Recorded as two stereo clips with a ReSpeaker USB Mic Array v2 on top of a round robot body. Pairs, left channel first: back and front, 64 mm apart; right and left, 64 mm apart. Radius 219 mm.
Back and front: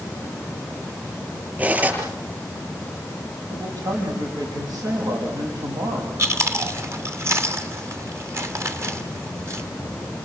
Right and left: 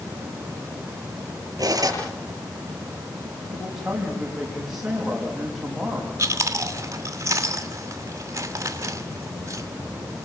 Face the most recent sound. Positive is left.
turn(degrees=45)